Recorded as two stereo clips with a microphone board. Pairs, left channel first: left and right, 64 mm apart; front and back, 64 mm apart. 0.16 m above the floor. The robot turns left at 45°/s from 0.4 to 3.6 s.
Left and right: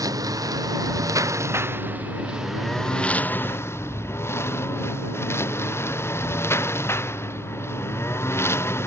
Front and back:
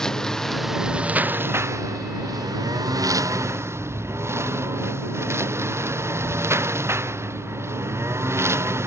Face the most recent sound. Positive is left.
turn(degrees=135)